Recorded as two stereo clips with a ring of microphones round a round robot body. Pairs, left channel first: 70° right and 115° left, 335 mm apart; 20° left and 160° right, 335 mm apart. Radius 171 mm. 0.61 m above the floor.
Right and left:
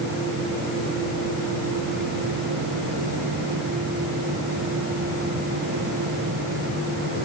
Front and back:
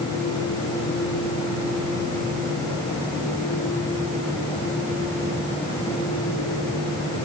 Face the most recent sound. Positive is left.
No sound to turn to.